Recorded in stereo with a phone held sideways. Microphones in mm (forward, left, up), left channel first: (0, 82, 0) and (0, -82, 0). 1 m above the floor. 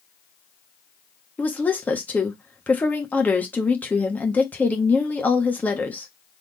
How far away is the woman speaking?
About 1.2 m.